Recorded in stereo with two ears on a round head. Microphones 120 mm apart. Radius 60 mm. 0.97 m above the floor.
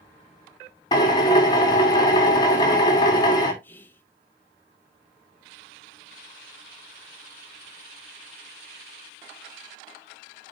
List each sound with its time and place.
0.9 s a drill: 30° left (ahead or behind), 2.0 m
3.6 s whispering: 15° left (ahead or behind), 0.9 m